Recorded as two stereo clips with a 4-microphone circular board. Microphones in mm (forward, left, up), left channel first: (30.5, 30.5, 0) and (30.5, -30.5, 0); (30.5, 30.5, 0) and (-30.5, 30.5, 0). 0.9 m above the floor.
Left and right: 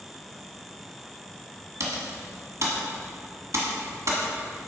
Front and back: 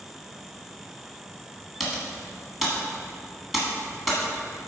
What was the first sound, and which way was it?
Typing on a keyboard, 95° right.